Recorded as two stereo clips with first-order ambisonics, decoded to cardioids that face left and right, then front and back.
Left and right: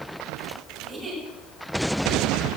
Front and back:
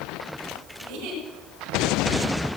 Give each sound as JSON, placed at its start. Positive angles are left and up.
{"t": 0.8, "sound": "a giggle", "azimuth_deg": -160, "distance_m": 9.0}